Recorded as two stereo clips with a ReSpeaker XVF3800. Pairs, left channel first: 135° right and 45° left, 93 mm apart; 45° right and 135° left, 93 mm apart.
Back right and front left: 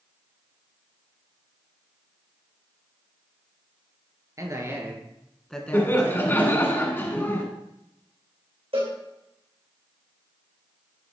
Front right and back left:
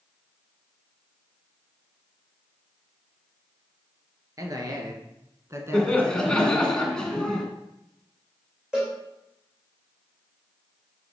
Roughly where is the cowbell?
Ahead left.